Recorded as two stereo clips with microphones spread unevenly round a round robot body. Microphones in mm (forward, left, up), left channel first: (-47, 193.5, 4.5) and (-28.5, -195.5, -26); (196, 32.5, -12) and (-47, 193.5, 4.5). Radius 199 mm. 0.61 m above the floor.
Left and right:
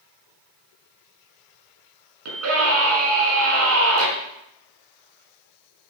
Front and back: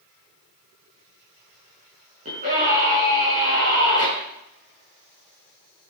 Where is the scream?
140° right, 6.5 m.